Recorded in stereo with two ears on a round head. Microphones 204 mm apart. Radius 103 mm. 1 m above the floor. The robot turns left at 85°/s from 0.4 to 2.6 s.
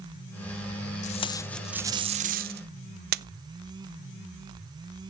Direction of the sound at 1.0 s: 30° left (ahead or behind).